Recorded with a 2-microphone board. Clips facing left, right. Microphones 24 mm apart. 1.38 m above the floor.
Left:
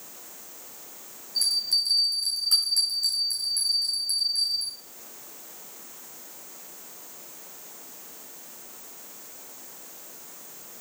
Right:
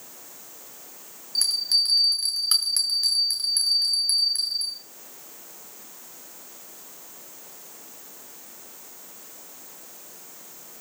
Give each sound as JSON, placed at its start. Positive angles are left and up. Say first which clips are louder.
{"t": 1.4, "sound": "a bell", "louder": "right 2 dB", "side_deg": -55, "distance_m": 6.5}